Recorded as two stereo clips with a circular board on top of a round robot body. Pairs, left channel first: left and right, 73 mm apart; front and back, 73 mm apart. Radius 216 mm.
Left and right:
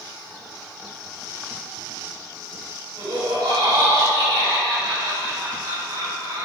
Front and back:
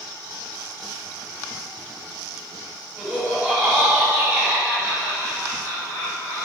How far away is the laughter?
About 4.5 m.